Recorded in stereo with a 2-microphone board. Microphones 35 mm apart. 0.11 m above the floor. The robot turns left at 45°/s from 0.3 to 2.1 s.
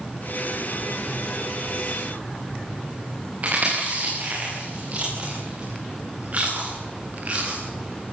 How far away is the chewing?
About 9.5 m.